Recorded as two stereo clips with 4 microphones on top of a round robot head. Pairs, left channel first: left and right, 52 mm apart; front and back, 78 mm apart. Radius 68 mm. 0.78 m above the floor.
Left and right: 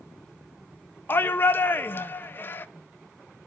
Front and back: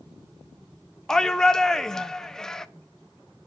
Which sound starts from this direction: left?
A shout, at 1.1 s.